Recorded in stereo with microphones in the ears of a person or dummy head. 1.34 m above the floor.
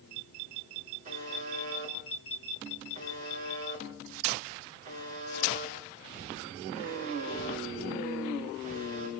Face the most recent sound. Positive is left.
turn(degrees=-50)  # may be behind; listen again after turning